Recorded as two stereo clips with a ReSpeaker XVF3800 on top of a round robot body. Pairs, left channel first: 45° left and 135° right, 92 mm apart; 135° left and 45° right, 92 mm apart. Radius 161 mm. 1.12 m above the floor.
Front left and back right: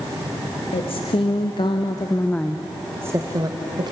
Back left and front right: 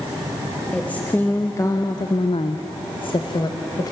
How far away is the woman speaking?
About 2 m.